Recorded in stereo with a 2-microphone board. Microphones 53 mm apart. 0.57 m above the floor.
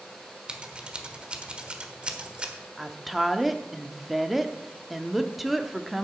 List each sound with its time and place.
0.5 s scissors: 20° right (ahead or behind), 1.2 m
2.8 s a woman speaking: 5° right (ahead or behind), 0.8 m